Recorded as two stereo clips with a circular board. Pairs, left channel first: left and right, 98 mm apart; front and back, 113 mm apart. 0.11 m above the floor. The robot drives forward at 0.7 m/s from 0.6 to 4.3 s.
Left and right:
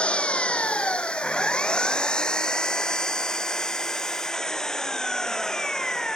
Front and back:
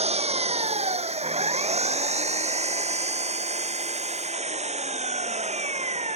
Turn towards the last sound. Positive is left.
turn(degrees=175)